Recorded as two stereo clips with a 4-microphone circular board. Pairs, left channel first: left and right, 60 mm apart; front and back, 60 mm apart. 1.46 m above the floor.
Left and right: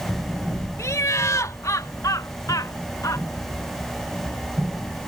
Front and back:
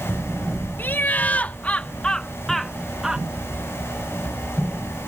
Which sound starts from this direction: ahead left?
Laughter, at 0.8 s.